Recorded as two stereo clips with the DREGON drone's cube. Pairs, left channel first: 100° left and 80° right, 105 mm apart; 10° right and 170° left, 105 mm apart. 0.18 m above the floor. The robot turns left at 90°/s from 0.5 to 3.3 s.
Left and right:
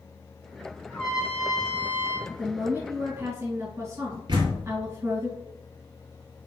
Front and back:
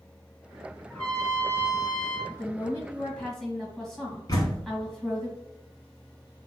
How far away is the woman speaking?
About 1.6 m.